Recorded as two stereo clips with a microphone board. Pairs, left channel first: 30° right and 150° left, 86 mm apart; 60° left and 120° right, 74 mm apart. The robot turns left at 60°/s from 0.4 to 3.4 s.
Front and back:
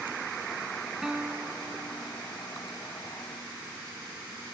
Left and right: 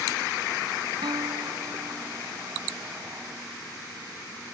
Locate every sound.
1.0 s a guitar: 125° right; by 2.2 s 165° left